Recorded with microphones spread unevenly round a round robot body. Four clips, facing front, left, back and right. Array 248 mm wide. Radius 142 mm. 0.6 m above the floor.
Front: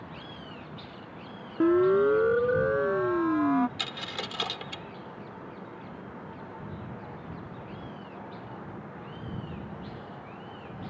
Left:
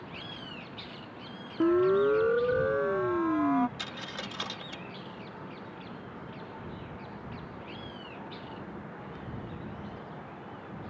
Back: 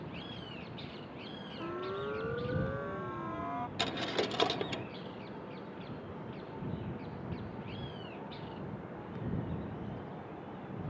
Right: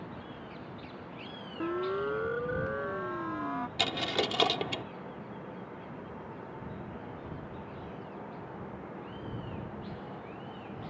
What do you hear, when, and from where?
1.6 s a siren: 30° left
3.8 s a dropped coin: 115° right